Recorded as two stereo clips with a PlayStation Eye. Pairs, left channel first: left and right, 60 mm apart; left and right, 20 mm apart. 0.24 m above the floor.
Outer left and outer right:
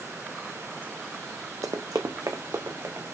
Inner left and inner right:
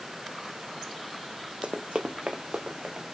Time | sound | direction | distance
1.6 | running footsteps | 65° right (ahead or behind) | 0.6 m